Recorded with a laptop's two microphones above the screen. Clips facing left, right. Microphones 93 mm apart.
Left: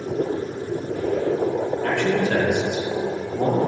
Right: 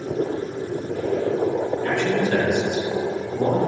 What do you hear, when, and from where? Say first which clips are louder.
1.8 s a man speaking: left 2 dB; 75° left (ahead or behind), 4 m; by 3.6 s 65° left (ahead or behind), 5.5 m